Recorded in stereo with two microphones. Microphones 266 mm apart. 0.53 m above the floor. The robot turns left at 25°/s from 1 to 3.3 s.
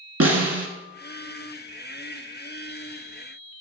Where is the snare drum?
65° right (ahead or behind), 1.4 m.